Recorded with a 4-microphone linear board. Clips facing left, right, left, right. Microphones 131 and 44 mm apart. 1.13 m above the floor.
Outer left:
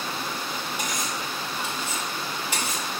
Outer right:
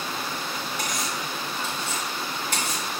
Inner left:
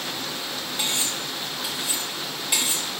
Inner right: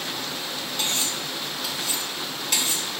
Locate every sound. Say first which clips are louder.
0.8 s cutlery clinking: even, even; 10° left (ahead or behind), 2 m